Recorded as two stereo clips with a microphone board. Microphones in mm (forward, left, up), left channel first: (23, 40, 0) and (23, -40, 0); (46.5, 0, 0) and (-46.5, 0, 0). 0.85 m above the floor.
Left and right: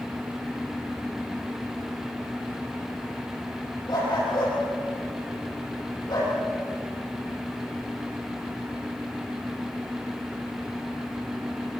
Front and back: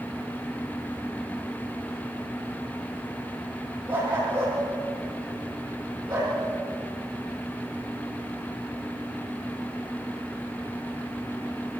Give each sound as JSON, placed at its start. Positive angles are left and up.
{"t": 3.9, "sound": "a dog barking", "azimuth_deg": 130, "distance_m": 9.0}